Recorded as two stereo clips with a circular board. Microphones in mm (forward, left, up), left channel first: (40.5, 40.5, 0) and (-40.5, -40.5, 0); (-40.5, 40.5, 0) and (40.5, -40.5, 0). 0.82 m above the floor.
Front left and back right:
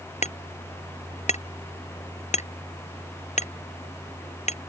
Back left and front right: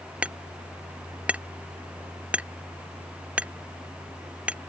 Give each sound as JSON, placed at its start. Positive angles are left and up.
{"t": 0.2, "sound": "hammering", "azimuth_deg": 35}